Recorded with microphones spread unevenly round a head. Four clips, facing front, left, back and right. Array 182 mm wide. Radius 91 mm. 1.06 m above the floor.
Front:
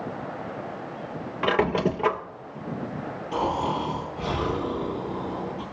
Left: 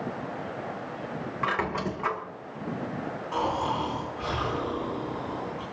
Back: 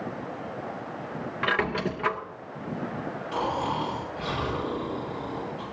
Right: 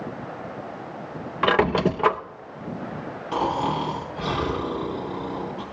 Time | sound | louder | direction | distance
1.4 | a squeak | right 10 dB, front 5 dB | 65° right | 0.6 m
3.3 | snoring | right 4 dB, front 3 dB | 70° right | 5 m